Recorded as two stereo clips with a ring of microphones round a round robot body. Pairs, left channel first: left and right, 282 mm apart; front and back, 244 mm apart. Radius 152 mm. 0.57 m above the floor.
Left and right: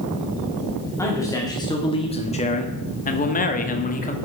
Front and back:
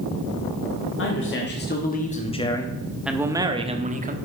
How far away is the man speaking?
About 1.6 m.